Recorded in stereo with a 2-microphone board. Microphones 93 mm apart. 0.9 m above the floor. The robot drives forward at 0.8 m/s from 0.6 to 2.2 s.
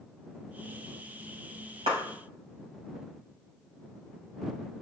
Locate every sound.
1.9 s a clap: 75° right (ahead or behind), 4.5 m